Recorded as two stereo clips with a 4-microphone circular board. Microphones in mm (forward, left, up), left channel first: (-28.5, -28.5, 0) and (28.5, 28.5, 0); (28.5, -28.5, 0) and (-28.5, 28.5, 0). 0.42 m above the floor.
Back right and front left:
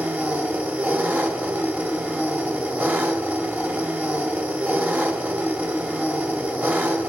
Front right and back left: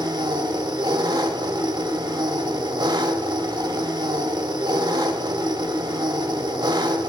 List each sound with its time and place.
0.0 s an engine running: 115° left, 1.5 m